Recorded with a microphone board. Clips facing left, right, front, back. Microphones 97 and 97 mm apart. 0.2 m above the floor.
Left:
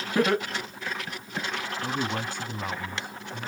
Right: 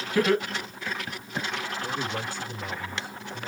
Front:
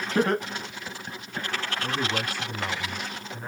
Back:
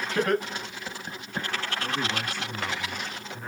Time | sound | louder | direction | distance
0.1 | laughter | right 1 dB, front 1 dB | 35° left | 1.6 m
1.8 | a man speaking | left 4 dB, front 2 dB | 70° left | 1.7 m